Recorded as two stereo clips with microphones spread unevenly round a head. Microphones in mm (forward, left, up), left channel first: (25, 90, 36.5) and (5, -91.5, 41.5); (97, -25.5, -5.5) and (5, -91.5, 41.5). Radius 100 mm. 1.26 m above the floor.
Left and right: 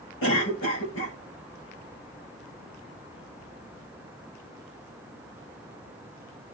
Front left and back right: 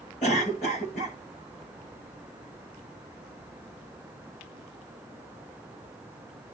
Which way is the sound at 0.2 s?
70° left.